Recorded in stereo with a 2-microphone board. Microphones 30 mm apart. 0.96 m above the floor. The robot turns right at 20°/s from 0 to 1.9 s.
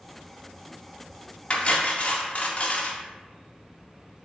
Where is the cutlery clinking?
35° left (ahead or behind), 0.6 m; by 3.0 s 45° left (ahead or behind), 0.6 m.